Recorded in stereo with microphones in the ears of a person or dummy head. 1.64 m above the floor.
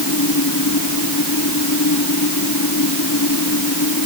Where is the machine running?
90° left.